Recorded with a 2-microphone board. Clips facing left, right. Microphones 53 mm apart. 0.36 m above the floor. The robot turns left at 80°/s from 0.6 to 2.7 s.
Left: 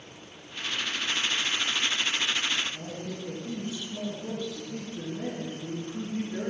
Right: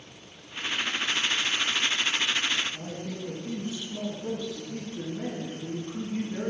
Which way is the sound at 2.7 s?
65° right (ahead or behind).